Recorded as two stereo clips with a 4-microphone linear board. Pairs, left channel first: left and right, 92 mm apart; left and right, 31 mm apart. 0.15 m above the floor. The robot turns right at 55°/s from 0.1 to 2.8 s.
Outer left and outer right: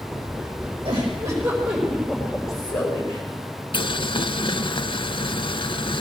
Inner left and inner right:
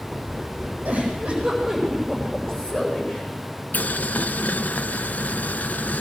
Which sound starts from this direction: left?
Boiling, at 3.7 s.